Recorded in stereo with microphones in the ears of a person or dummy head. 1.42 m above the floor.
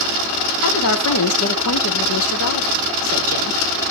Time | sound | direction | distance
0.6 | a woman speaking | 85° left | 1.9 m